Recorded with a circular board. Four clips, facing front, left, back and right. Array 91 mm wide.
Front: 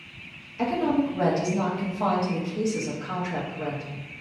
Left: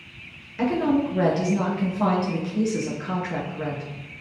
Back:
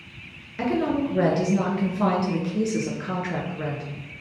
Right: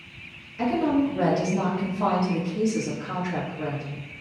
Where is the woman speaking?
150° left, 3.5 m.